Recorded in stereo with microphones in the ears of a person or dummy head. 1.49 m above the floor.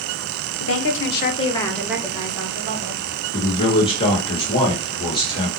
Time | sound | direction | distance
0.6 | a woman speaking | 75° left (ahead or behind) | 1.0 m
3.3 | a man speaking | 25° left (ahead or behind) | 1.8 m